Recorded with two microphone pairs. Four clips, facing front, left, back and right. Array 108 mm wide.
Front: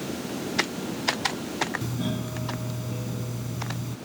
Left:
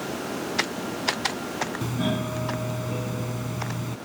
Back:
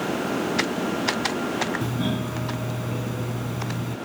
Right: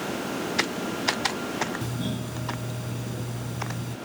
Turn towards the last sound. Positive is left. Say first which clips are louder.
# left 4 dB, back 4 dB
turn(degrees=115)